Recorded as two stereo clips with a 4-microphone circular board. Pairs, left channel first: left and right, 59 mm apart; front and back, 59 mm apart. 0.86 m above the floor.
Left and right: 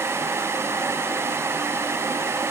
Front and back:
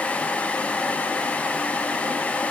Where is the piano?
I don't hear a piano.